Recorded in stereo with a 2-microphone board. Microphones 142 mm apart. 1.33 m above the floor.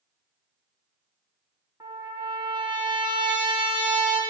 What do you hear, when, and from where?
1.8 s a trumpet: 35° right (ahead or behind), 1.1 m